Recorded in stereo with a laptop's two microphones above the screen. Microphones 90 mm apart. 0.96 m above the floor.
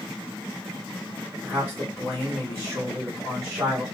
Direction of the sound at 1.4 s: 15° right (ahead or behind).